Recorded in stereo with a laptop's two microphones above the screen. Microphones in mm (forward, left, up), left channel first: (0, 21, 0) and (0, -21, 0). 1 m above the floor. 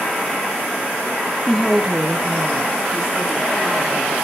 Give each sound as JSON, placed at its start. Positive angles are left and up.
{"t": 1.5, "sound": "a woman speaking", "side_deg": 15, "distance_m": 0.7}